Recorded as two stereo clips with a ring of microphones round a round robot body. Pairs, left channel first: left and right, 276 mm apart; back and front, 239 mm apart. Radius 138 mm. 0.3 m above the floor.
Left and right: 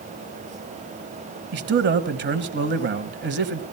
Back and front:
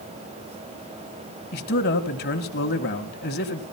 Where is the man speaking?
135° right, 1.4 m.